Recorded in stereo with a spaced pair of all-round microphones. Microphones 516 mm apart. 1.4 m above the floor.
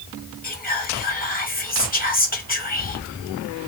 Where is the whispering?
20° left (ahead or behind), 0.9 m.